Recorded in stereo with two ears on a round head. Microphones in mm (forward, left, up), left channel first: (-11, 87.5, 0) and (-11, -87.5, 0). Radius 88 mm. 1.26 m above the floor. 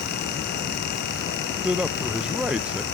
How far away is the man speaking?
About 0.7 m.